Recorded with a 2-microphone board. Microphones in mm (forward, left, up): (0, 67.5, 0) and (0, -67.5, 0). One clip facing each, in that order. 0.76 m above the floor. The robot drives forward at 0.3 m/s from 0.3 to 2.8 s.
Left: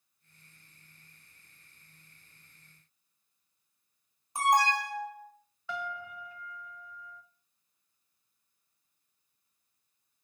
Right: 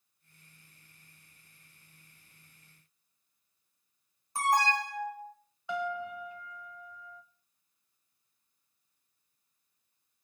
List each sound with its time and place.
4.3 s an alarm: 20° left (ahead or behind), 2.5 m
5.7 s a piano: 20° right (ahead or behind), 1.2 m